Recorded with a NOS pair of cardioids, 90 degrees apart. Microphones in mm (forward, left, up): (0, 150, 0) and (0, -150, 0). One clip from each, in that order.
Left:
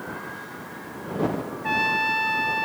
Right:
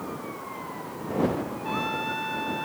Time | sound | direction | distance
1.6 | a trumpet | 60° left | ?